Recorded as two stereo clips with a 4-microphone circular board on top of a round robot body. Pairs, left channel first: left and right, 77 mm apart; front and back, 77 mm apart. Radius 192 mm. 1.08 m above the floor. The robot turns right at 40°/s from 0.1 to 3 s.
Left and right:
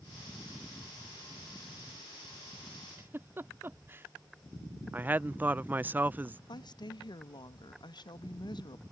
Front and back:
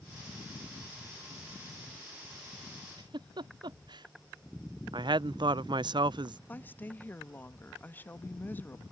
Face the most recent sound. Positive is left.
turn(degrees=65)